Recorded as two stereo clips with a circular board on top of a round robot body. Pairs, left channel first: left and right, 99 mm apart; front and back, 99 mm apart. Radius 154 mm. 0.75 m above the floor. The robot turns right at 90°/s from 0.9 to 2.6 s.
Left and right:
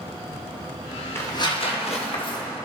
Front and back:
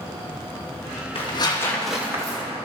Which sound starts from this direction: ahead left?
Tearing paper, at 1.1 s.